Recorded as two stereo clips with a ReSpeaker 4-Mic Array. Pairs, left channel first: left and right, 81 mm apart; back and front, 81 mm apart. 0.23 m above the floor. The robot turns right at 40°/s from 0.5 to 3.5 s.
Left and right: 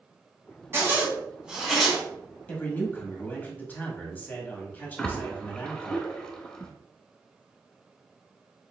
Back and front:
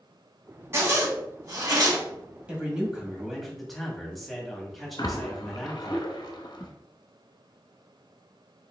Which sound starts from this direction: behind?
A splash, at 5.0 s.